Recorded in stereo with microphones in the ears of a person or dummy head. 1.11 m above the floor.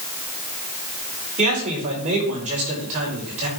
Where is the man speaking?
40° right (ahead or behind), 4.5 m.